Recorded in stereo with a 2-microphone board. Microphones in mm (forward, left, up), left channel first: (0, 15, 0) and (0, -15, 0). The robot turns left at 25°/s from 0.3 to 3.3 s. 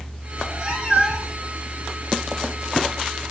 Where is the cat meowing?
35° right (ahead or behind), 1.9 m; by 1.5 s 20° right (ahead or behind), 1.9 m.